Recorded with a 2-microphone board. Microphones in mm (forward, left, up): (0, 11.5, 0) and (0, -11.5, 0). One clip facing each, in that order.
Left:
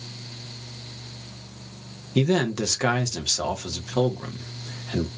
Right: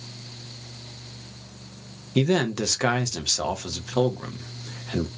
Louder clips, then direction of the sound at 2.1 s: Even; 5° right (ahead or behind).